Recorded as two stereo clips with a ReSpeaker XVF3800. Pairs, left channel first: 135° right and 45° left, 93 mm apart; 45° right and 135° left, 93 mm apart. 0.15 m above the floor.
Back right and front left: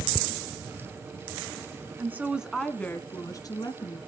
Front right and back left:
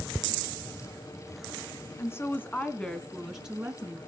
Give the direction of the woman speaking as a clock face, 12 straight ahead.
12 o'clock.